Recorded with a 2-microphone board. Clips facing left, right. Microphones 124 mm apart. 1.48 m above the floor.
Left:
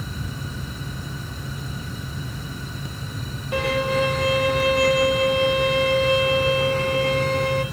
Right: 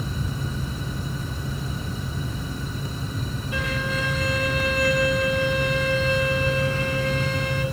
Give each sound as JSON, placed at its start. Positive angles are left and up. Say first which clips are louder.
{"t": 3.5, "sound": "a violin", "louder": "left 8 dB", "side_deg": 65, "distance_m": 2.0}